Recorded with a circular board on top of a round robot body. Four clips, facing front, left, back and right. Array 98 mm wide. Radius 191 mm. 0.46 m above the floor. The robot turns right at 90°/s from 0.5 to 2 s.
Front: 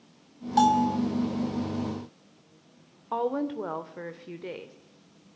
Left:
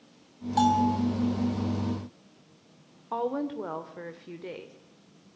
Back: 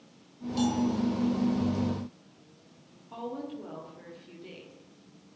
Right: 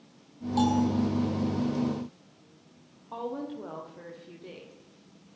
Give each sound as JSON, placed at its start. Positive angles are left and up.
{"t": 0.6, "sound": "a bell", "azimuth_deg": 15, "distance_m": 1.3}
{"t": 3.1, "sound": "a woman speaking", "azimuth_deg": 30, "distance_m": 2.5}